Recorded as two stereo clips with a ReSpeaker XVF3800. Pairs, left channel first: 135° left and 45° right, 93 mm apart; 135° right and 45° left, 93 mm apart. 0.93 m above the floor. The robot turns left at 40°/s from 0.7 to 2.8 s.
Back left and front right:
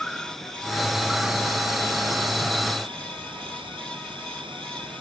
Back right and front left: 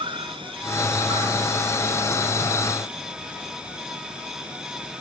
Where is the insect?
50° left; by 5.0 s 35° right.